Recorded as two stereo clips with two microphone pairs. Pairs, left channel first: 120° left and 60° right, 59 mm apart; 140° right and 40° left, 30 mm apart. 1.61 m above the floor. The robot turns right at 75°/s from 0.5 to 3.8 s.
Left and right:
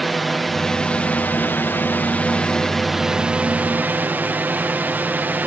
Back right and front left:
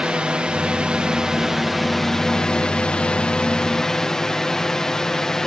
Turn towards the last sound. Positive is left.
turn(degrees=-80)